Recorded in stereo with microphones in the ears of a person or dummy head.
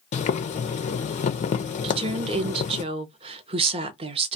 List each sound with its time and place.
0.1 s boiling: 35° left (ahead or behind), 0.6 m
1.8 s a woman speaking: 30° right (ahead or behind), 0.8 m